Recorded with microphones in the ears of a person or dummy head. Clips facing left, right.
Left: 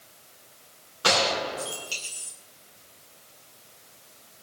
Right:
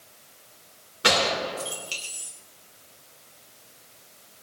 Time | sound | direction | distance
1.0 | a gunshot | 25° right (ahead or behind) | 2 m